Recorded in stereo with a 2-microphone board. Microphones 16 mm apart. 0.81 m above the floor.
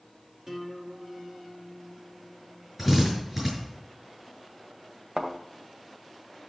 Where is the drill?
10° right (ahead or behind), 7.5 m.